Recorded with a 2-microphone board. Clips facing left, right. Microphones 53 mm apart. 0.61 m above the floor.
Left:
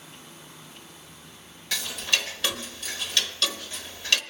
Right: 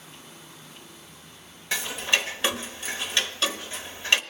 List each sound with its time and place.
1.7 s ticking: 25° right (ahead or behind), 0.9 m